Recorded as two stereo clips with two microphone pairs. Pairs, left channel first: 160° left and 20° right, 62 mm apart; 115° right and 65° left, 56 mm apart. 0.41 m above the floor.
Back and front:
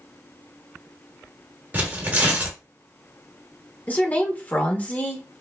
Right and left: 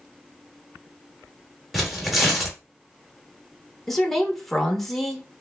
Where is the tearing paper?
15° right, 1.2 m.